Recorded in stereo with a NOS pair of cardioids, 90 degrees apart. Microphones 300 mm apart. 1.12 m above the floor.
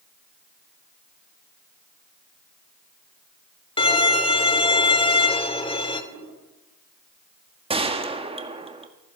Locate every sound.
3.8 s a violin: 15° left, 1.8 m
6.1 s a whoosh: 65° right, 4.5 m
7.7 s a gunshot: 20° right, 1.5 m